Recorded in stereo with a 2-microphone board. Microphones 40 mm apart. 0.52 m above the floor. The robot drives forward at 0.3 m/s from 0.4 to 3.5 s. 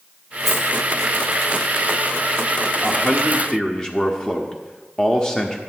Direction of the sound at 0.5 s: Centre (ahead or behind).